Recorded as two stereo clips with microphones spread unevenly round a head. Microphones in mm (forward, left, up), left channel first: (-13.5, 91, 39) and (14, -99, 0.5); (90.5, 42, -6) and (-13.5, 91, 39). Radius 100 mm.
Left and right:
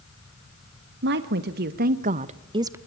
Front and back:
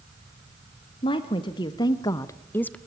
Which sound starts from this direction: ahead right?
A woman speaking, at 1.0 s.